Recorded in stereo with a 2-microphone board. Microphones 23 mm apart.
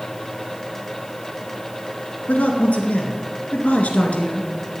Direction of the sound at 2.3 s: 80° left.